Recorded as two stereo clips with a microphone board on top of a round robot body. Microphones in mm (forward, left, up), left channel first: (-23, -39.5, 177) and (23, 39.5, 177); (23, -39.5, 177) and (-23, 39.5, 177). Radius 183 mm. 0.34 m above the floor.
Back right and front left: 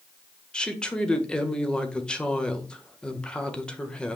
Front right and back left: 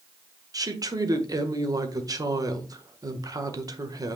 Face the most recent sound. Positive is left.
turn(degrees=160)